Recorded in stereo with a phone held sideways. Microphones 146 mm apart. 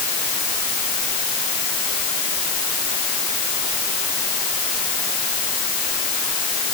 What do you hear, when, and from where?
Only background noise.